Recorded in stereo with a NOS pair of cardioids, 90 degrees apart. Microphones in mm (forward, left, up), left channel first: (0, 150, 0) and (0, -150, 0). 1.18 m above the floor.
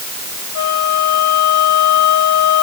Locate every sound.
0.6 s a flute: 65° left